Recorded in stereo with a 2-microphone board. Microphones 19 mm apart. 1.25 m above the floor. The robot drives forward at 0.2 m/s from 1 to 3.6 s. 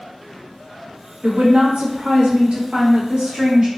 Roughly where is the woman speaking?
Right.